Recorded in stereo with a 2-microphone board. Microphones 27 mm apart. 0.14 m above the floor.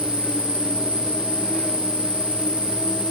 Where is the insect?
50° left (ahead or behind), 1.8 m.